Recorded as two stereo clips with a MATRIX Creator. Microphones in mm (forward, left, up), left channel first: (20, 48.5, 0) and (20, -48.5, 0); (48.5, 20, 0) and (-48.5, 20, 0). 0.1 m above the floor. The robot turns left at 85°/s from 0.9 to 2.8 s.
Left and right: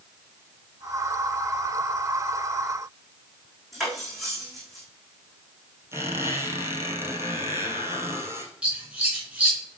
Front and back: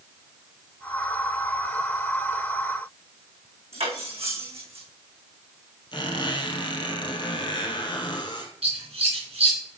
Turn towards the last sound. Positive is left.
turn(degrees=-170)